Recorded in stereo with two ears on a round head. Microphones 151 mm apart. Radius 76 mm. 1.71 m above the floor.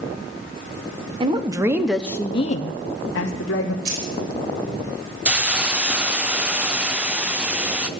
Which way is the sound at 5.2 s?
5° right (ahead or behind).